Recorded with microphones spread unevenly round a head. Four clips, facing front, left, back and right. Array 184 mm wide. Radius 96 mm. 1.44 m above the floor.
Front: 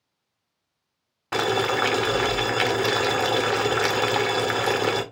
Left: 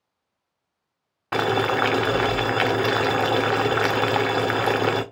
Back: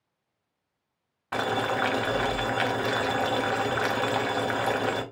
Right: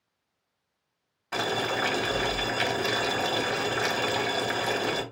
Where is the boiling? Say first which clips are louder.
Left 7 dB, front 4 dB; 65° left, 0.8 m.